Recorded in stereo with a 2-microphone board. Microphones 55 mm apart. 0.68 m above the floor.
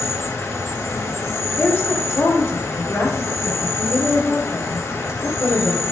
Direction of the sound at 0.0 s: 60° left (ahead or behind).